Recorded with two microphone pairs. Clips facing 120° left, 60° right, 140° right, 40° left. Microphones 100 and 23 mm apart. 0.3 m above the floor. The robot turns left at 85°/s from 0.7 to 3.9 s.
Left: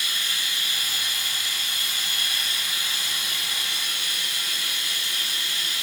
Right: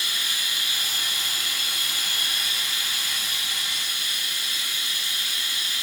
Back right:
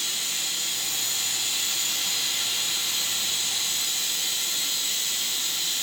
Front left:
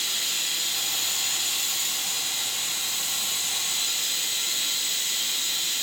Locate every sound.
0.0 s running water: 10° left, 4.5 m; by 5.8 s 100° left, 4.5 m